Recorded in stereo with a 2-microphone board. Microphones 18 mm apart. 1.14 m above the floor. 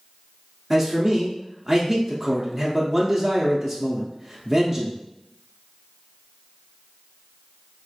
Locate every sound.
0.7 s a man speaking: 10° right (ahead or behind), 0.6 m